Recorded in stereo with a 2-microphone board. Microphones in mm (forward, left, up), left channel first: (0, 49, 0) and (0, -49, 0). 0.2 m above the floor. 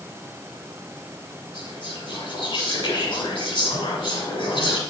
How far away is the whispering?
About 4 m.